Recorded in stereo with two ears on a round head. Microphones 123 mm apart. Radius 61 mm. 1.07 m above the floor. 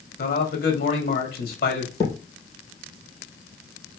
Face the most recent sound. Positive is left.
turn(degrees=30)  # may be behind; listen again after turning